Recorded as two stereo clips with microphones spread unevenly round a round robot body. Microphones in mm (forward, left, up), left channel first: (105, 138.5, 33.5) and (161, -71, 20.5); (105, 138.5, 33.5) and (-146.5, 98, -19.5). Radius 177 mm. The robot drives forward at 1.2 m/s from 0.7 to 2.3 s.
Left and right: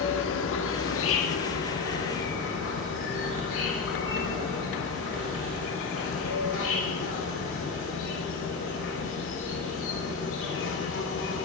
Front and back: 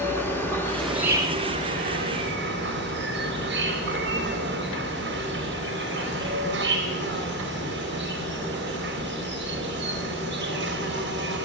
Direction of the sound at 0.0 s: 95° left.